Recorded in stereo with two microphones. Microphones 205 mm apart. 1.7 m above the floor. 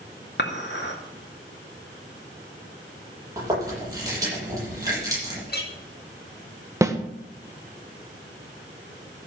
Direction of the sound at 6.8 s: 15° right (ahead or behind).